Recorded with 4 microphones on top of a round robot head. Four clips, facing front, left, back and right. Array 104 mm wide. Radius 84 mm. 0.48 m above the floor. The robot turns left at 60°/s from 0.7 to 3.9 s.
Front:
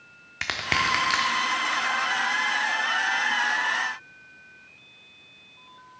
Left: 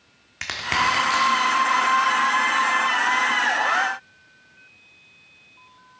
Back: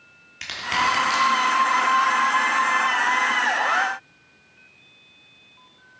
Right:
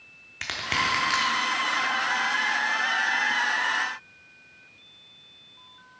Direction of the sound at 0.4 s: 15° left.